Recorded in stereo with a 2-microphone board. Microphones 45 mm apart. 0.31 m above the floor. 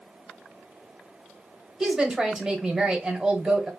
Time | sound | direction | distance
1.8 | a woman speaking | 15° right (ahead or behind) | 1.1 m